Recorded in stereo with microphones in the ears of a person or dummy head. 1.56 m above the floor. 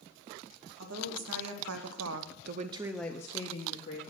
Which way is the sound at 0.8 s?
80° right.